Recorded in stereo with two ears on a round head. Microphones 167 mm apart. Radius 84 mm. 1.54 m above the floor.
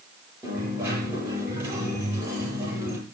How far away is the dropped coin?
About 9.5 m.